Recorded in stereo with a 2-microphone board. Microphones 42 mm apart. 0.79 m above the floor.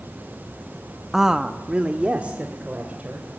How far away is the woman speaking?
About 0.8 m.